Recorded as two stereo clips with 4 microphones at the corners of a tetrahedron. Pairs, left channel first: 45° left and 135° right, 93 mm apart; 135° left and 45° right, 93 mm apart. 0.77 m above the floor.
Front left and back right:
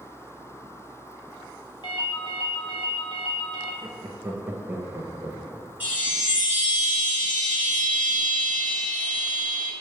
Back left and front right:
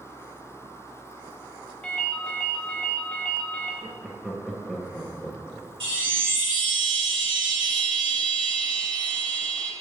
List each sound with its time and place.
1.8 s a ringtone: 60° left, 0.7 m
3.8 s laughter: 150° right, 0.6 m
5.8 s a chime: 60° right, 1.9 m